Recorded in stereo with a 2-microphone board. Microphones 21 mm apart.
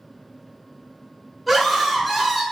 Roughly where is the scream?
Centre.